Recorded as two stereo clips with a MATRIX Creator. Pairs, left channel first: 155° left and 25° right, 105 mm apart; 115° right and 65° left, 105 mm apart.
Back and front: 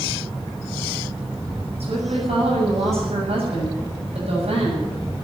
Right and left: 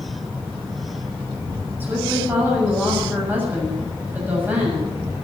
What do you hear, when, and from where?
1.8 s a woman speaking: 5° right, 7.5 m